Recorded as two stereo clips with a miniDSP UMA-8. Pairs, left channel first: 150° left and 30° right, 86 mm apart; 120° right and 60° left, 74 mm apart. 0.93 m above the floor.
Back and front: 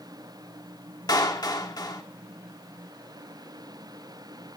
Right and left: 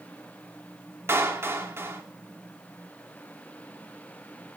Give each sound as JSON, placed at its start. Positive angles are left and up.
{"t": 1.1, "sound": "a clap", "azimuth_deg": 115, "distance_m": 2.5}